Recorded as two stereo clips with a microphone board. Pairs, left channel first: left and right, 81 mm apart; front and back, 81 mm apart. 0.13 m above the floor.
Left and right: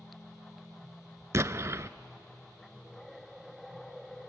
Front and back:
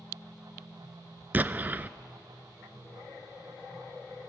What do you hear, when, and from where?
1.3 s an explosion: 125° right, 0.5 m